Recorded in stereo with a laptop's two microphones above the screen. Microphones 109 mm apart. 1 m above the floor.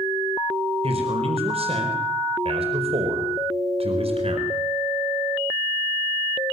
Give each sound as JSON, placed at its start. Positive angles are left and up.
{"t": 0.8, "sound": "a man speaking", "side_deg": -70, "distance_m": 4.5}